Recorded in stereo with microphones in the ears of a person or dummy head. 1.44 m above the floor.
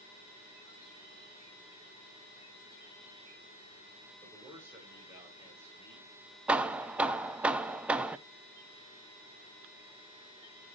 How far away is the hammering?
About 0.5 m.